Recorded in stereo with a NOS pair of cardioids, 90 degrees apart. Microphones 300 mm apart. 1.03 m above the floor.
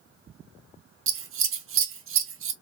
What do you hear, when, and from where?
1.1 s scissors: 45° right, 0.7 m